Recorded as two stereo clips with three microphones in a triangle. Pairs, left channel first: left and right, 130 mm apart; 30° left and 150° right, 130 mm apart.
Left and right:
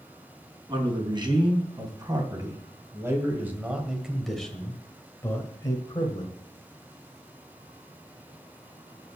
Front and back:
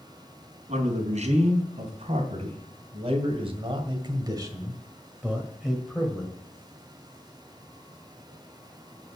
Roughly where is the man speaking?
Behind right.